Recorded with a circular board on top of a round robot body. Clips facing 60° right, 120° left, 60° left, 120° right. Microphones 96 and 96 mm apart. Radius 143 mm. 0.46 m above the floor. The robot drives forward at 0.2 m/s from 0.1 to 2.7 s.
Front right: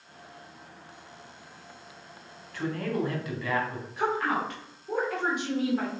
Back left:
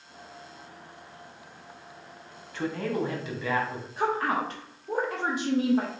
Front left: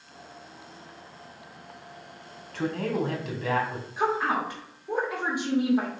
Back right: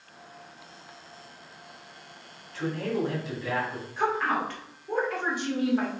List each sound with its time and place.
2.5 s a man speaking: 55° left, 1.6 m
4.0 s a woman speaking: 120° left, 1.3 m